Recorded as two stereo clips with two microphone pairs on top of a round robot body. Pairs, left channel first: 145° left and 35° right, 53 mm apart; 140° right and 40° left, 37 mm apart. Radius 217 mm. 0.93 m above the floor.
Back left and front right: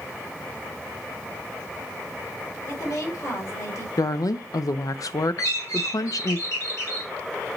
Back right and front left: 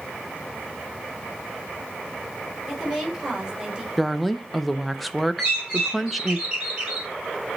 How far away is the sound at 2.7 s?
About 3.5 m.